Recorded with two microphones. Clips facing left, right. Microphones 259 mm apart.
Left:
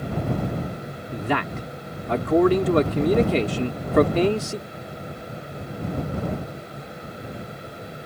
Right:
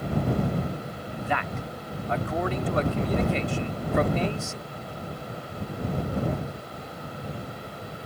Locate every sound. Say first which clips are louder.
1.1 s a man speaking: left 6 dB; 75° left (ahead or behind)